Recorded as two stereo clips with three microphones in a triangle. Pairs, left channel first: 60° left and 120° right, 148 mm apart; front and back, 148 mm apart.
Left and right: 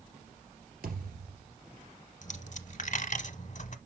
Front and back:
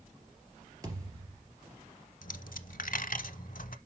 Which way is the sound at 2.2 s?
25° left.